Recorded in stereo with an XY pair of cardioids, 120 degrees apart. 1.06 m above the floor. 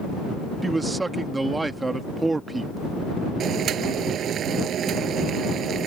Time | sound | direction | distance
0.6 | a man speaking | 20° right | ?
3.4 | boiling | 55° right | ?